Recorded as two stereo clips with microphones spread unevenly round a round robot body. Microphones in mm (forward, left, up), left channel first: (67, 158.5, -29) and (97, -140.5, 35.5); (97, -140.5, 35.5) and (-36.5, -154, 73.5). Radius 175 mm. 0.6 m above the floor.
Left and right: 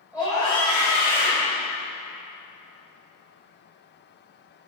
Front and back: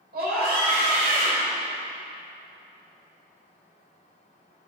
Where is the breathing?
No breathing in this recording.